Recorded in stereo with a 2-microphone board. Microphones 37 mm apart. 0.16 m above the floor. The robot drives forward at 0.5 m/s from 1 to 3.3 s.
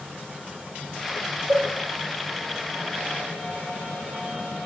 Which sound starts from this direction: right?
A cowbell, at 1.5 s.